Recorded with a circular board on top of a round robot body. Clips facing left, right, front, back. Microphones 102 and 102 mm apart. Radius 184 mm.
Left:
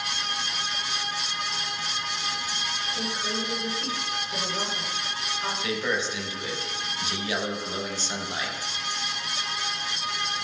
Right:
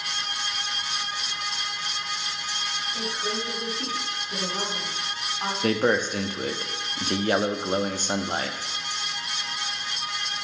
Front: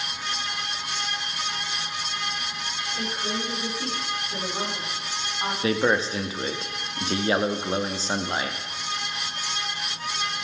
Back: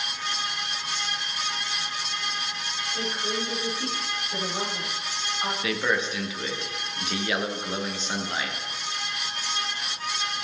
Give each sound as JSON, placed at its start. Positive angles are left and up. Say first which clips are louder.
{"t": 2.9, "sound": "a woman speaking", "louder": "right 1 dB, even", "azimuth_deg": -80, "distance_m": 6.0}
{"t": 5.6, "sound": "a man speaking", "louder": "right 8 dB, front 6 dB", "azimuth_deg": -55, "distance_m": 1.2}